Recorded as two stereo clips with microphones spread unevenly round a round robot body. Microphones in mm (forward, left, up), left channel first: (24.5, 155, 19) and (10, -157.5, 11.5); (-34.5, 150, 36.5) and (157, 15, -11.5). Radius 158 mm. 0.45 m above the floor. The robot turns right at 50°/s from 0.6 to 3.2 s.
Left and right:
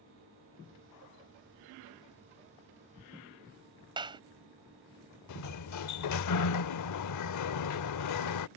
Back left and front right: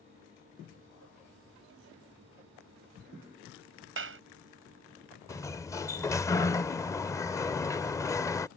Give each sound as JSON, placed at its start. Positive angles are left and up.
{"t": 4.0, "sound": "a clap", "azimuth_deg": -20}
{"t": 5.3, "sound": "a sliding door", "azimuth_deg": 65}